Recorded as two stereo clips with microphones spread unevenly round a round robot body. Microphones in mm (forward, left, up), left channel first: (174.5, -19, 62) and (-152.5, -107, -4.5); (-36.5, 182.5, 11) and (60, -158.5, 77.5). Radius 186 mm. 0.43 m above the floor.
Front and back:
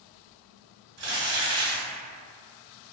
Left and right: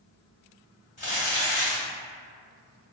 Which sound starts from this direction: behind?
Crumpling, at 1.0 s.